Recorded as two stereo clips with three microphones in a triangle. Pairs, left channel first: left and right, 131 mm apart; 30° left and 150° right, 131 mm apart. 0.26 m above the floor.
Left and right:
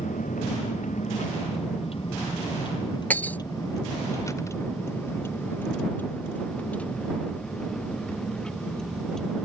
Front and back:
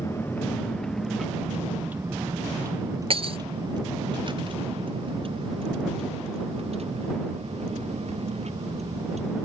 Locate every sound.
0.0 s a vehicle: 100° left; by 9.4 s 175° left
3.1 s breaking glass: 165° left